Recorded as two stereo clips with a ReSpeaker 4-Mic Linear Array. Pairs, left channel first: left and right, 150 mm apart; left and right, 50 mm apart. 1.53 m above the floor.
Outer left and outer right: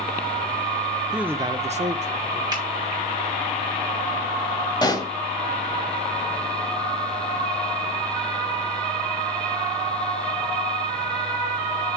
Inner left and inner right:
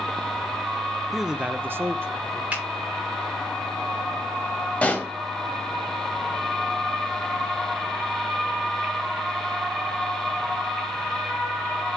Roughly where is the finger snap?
Right.